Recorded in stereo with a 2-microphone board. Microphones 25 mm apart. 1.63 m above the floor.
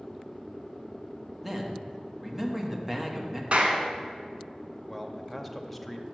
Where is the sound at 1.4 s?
5° right (ahead or behind), 1.1 m.